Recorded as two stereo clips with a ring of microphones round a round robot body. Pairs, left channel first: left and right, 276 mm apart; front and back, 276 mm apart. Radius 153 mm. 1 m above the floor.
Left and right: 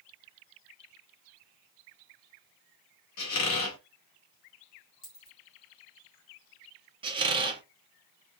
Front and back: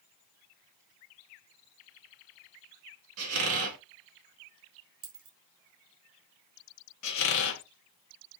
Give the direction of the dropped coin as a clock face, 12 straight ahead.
7 o'clock.